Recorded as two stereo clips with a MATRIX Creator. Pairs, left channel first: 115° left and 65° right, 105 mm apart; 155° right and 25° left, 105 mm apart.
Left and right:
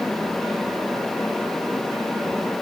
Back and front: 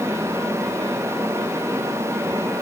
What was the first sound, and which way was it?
Only background noise.